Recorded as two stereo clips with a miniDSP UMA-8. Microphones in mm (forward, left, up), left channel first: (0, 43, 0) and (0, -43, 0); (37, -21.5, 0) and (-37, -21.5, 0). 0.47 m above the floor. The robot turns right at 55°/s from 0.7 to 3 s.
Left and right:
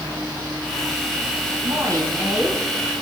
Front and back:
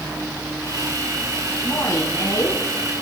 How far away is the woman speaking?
About 3 m.